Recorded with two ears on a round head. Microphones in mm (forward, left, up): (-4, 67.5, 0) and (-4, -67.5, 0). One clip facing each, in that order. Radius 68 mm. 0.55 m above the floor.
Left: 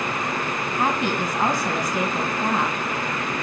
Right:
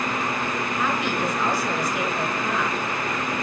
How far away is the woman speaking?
About 4.5 m.